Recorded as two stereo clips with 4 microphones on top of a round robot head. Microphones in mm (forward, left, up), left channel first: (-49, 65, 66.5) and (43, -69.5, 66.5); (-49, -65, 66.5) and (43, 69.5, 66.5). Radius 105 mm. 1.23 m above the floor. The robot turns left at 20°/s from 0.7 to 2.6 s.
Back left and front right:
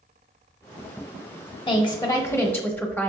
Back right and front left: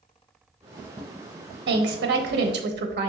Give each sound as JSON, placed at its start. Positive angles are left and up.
{"t": 1.7, "sound": "a woman speaking", "azimuth_deg": 65, "distance_m": 1.0}